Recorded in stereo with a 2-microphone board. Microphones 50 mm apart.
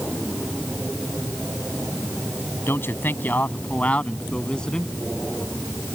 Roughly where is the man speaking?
Left.